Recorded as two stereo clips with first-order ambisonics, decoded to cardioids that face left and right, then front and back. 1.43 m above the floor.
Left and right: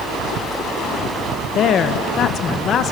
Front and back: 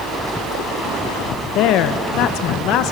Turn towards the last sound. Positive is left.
turn(degrees=35)